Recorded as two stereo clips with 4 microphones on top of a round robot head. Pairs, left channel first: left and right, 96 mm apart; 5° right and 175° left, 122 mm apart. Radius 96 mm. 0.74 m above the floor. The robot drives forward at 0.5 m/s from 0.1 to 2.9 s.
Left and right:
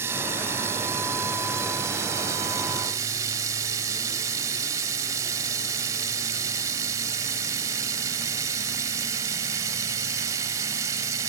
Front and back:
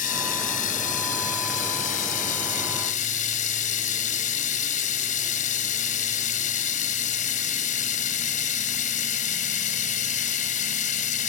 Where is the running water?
20° right; by 11.3 s 25° right.